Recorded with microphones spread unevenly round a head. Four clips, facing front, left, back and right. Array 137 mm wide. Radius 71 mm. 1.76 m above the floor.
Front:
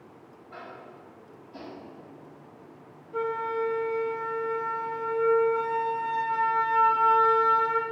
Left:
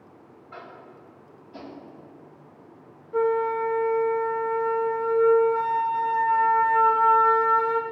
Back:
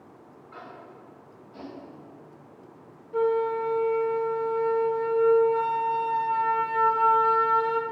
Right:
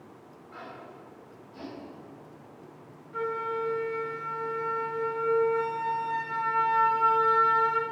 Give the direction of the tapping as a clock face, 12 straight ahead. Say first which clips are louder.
Left 1 dB, front 1 dB; 9 o'clock.